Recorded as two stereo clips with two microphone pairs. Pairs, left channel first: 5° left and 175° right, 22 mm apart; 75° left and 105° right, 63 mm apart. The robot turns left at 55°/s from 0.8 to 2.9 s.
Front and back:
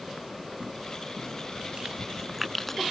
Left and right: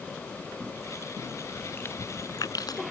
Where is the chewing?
145° left; by 2.8 s 75° left.